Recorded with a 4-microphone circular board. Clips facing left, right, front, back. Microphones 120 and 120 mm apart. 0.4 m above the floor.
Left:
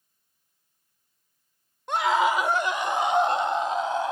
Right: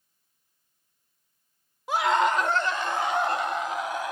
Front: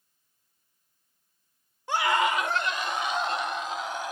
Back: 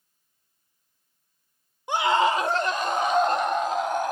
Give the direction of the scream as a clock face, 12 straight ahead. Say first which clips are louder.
Even, back 4 dB; 5 o'clock.